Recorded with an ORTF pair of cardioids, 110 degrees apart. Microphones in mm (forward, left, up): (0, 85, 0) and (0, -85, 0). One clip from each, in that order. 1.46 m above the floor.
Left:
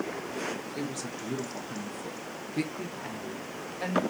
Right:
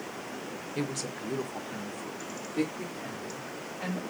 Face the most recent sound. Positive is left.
turn(degrees=40)